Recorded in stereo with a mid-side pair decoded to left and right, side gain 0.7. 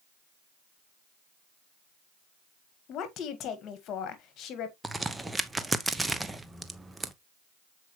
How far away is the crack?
About 0.8 m.